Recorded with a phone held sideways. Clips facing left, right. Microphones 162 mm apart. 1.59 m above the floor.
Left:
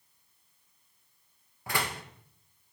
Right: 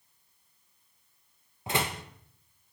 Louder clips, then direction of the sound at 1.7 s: Right 3 dB; 25° right (ahead or behind).